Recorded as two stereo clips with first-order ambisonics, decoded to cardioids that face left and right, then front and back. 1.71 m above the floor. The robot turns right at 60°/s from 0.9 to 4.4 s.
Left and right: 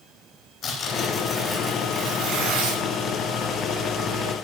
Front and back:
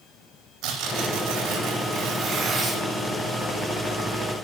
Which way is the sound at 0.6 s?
150° left.